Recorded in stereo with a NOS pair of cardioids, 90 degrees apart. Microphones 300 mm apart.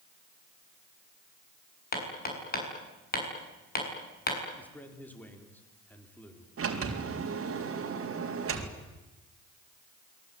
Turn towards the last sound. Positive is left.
turn(degrees=-45)